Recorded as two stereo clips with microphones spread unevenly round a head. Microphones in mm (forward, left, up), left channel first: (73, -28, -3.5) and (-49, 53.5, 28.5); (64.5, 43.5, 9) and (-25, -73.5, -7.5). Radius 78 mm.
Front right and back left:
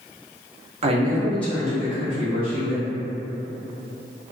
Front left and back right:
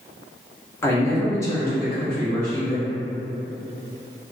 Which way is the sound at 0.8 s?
125° left.